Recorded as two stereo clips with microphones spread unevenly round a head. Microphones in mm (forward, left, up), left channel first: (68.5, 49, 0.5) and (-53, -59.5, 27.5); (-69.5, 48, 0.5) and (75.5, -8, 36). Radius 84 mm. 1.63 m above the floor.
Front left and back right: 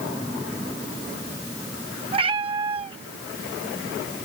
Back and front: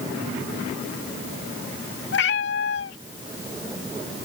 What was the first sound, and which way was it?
A cat meowing, straight behind.